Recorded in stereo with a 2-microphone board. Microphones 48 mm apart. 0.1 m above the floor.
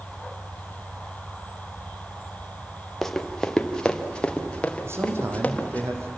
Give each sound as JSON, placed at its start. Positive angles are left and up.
{"t": 3.0, "sound": "running footsteps", "side_deg": 5, "distance_m": 1.9}
{"t": 4.8, "sound": "a man speaking", "side_deg": -65, "distance_m": 4.0}